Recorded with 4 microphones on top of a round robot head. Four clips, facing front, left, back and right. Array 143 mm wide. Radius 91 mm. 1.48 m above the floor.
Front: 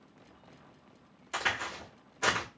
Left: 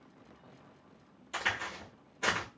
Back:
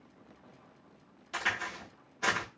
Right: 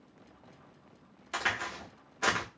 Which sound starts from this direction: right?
A crack, at 1.3 s.